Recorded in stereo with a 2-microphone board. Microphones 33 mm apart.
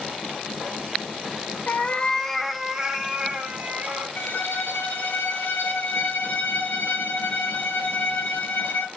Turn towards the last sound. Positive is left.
turn(degrees=65)  # may be behind; listen again after turning